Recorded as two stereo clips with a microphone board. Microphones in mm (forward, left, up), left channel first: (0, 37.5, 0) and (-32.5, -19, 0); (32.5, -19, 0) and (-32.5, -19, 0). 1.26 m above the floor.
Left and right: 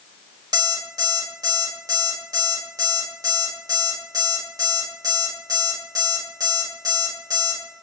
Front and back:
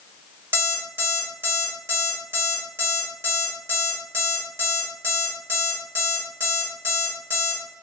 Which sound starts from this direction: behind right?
An alarm clock, at 0.5 s.